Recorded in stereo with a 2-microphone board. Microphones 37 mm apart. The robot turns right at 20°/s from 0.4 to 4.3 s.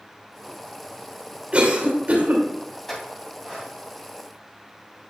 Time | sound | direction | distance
1.5 | a cough | 40° right (ahead or behind) | 2.5 m
2.9 | a clink | 5° left (ahead or behind) | 3 m